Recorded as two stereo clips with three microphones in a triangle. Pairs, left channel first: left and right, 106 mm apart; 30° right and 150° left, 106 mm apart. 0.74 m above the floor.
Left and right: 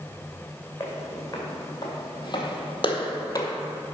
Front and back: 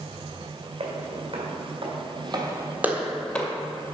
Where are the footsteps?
150° left, 2.5 m; by 3.5 s 35° left, 1.2 m.